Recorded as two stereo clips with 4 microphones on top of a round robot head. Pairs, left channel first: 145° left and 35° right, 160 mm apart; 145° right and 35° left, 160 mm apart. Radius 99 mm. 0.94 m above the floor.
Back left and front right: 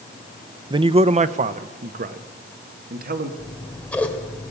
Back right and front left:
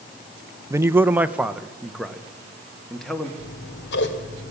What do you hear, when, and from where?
0.7 s a man speaking: 15° right, 0.7 m; by 3.3 s 60° right, 2 m
3.4 s scissors: 130° right, 2 m